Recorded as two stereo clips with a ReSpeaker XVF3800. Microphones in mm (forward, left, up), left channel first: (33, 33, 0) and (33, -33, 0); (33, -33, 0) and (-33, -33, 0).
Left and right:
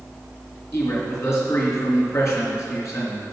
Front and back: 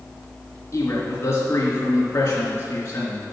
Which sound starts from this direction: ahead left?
A man speaking, at 0.7 s.